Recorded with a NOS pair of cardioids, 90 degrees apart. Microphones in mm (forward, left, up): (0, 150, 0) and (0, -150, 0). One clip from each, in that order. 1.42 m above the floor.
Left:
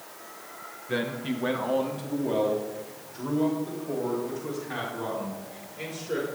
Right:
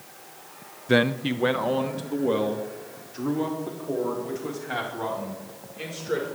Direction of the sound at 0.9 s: 50° right.